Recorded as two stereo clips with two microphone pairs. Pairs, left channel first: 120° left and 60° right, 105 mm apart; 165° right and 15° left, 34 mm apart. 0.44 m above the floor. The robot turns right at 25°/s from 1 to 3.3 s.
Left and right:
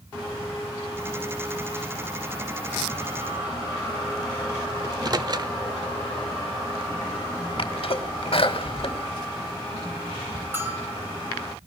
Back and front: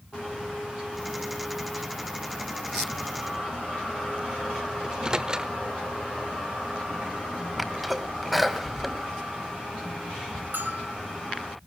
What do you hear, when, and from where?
4.8 s a microwave: 40° right, 1.0 m
7.6 s a sneeze: 105° left, 2.5 m
10.5 s a bell: 10° left, 3 m